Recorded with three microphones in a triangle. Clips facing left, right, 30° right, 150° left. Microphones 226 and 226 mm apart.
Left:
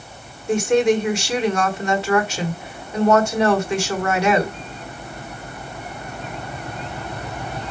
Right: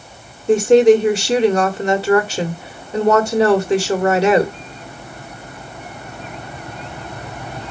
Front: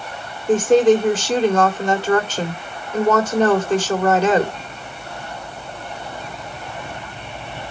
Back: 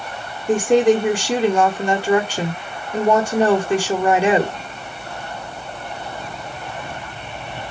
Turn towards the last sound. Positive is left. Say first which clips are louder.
# right 7 dB, front 1 dB
turn(degrees=-135)